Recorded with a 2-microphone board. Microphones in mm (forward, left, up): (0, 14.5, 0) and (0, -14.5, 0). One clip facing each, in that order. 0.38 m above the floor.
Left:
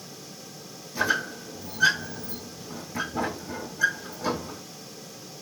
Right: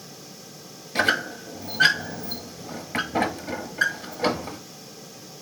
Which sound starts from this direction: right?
A squeak, at 0.9 s.